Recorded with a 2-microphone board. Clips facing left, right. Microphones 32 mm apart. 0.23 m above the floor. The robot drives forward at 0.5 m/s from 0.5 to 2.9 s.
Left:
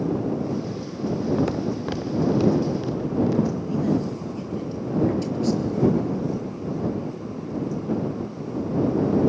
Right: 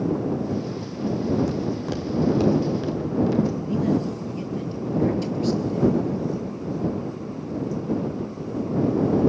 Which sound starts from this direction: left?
Footsteps, at 1.4 s.